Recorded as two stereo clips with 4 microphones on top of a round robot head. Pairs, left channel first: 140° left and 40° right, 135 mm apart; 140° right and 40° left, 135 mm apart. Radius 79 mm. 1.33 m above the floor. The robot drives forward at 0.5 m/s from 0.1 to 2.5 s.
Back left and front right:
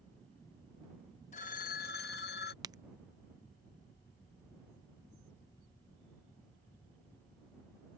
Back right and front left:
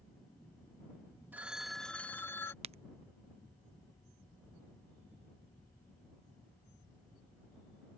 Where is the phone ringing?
115° left; by 2.5 s 150° left.